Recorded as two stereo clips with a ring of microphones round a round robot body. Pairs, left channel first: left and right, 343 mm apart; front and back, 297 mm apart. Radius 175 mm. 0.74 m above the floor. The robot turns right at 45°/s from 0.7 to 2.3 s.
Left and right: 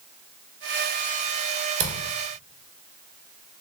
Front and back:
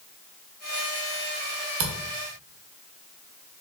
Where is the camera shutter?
155° right, 0.8 m; by 1.9 s 150° right, 0.8 m.